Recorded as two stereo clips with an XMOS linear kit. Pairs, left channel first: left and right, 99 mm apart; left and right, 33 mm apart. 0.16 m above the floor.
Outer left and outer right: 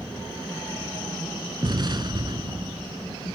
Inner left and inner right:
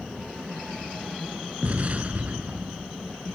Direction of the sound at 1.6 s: 50° right (ahead or behind).